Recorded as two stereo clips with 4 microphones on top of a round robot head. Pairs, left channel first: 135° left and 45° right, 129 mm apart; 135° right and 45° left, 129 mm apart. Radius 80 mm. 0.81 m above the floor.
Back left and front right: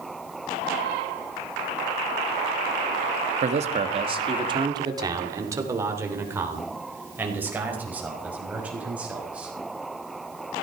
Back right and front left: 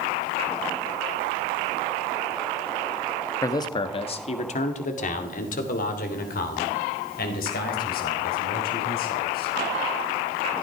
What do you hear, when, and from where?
3.4 s a man speaking: 70° right, 1.3 m; by 9.5 s 125° right, 6 m